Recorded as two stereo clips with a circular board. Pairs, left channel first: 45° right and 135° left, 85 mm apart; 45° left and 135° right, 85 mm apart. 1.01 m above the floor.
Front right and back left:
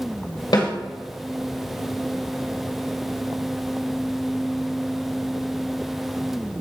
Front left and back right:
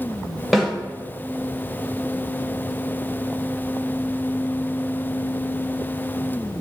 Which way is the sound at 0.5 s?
45° right.